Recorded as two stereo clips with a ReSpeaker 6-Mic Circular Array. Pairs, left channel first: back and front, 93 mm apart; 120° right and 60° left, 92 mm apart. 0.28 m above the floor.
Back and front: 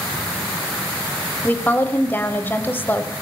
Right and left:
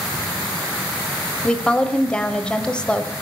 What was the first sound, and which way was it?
A woman speaking, straight behind.